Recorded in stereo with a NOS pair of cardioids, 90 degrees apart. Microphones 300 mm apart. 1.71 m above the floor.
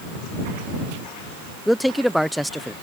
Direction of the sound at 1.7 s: Straight ahead.